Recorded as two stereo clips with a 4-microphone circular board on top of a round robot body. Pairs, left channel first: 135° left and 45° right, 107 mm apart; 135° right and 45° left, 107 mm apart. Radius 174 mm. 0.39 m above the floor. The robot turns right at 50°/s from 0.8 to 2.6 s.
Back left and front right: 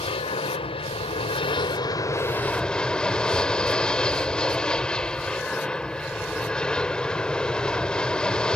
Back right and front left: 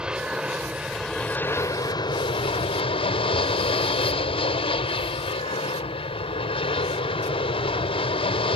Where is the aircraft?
125° left; by 8.6 s 145° right.